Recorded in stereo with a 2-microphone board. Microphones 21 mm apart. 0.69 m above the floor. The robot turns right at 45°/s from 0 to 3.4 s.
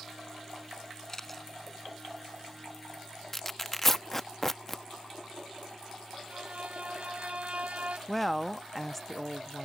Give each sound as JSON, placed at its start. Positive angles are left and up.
{"t": 1.1, "sound": "a camera shutter", "side_deg": 15}
{"t": 3.3, "sound": "tearing paper", "side_deg": 10}
{"t": 6.3, "sound": "a violin", "side_deg": -75}
{"t": 8.1, "sound": "a woman speaking", "side_deg": 0}